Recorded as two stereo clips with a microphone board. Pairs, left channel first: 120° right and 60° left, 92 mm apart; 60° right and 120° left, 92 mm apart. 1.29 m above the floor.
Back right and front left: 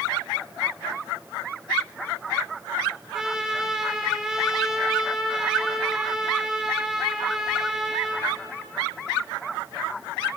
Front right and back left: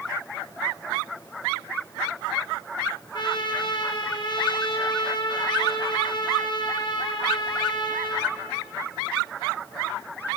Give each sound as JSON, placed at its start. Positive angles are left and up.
{"t": 3.1, "sound": "a trumpet", "azimuth_deg": -25, "distance_m": 1.2}